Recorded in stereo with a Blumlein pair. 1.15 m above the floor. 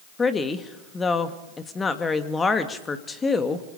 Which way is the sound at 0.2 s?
15° left.